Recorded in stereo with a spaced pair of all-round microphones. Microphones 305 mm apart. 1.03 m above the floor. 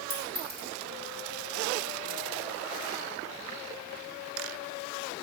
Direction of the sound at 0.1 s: 30° right (ahead or behind).